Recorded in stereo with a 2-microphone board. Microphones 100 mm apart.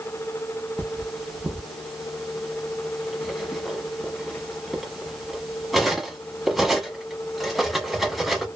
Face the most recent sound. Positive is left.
turn(degrees=0)  # may be behind; listen again after turning